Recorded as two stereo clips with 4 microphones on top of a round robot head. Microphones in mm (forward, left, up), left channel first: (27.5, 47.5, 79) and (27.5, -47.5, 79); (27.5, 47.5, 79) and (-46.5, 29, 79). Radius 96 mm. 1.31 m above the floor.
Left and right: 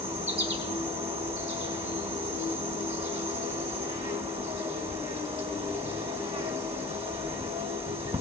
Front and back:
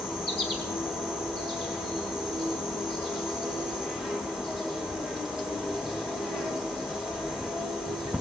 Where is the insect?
85° right, 1.7 m.